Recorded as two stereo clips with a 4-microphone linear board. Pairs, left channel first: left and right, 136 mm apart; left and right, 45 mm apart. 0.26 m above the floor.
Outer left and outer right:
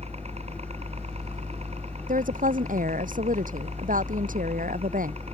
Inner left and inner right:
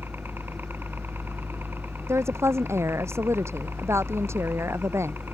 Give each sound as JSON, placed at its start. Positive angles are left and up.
{"t": 0.0, "sound": "a helicopter", "side_deg": -50}
{"t": 2.1, "sound": "a woman speaking", "side_deg": -85}